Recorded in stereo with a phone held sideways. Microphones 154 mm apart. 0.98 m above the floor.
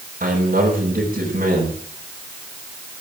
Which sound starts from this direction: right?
A man speaking, at 0.2 s.